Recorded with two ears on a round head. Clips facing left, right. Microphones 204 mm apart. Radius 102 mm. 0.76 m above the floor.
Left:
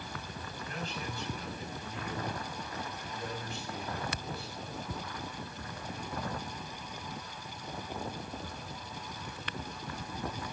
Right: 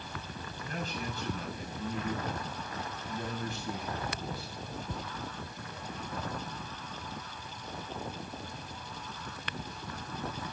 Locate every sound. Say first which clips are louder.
0.6 s a man speaking: right 3 dB; 40° right (ahead or behind), 5.5 m